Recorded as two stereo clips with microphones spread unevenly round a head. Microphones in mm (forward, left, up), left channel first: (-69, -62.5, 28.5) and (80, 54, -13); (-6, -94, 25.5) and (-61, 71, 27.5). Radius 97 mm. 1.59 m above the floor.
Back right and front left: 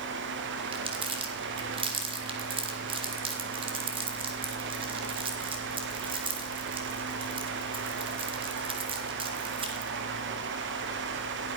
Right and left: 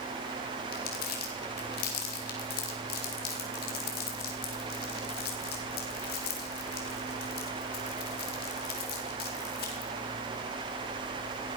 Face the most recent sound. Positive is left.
turn(degrees=-25)